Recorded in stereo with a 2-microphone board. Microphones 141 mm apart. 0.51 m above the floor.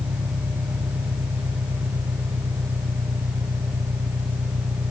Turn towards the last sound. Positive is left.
turn(degrees=-85)